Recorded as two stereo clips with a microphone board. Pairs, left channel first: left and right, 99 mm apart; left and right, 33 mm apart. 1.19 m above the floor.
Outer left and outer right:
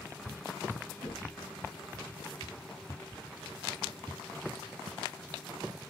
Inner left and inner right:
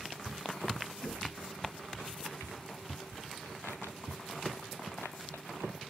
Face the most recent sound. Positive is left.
turn(degrees=45)  # may be behind; listen again after turning